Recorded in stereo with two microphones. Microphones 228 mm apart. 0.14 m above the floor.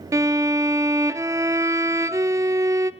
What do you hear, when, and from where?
0.1 s a violin: 15° right (ahead or behind), 0.6 m